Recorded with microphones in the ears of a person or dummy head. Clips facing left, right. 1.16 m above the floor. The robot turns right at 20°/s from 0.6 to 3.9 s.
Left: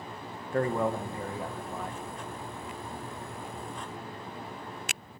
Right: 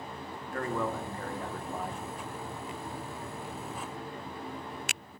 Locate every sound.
0.5 s a man speaking: 20° left (ahead or behind), 1.2 m; by 2.0 s 5° right (ahead or behind), 1.2 m